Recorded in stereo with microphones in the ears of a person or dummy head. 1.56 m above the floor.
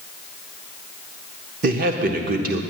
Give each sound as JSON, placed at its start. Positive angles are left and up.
{"t": 1.6, "sound": "a man speaking", "side_deg": -45, "distance_m": 0.8}